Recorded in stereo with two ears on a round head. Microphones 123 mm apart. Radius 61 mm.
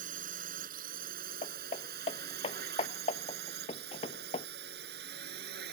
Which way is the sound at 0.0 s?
65° right (ahead or behind).